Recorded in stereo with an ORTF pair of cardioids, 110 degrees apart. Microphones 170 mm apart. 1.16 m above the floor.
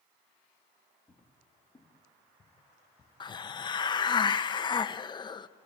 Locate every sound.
1.1 s footsteps: 5° left, 4.5 m; by 3.1 s 20° left, 5.5 m
3.2 s a hiss: 25° left, 0.8 m